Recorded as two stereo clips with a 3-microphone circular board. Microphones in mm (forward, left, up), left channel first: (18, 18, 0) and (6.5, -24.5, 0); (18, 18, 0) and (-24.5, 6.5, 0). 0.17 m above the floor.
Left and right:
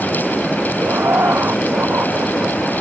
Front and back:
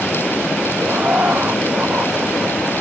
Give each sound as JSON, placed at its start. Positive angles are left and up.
{"t": 0.8, "sound": "laughter", "azimuth_deg": -125}